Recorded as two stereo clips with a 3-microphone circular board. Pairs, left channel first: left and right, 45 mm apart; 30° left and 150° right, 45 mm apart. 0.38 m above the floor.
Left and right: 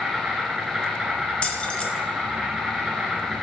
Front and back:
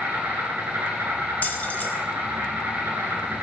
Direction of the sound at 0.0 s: 165° right.